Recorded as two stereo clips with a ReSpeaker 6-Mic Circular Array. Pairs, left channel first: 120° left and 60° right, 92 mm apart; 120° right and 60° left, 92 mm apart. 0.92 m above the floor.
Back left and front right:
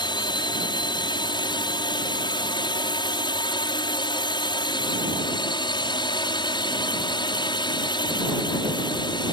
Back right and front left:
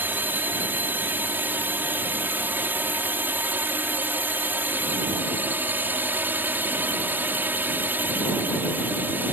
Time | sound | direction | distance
0.0 | a drone | 125° left | ?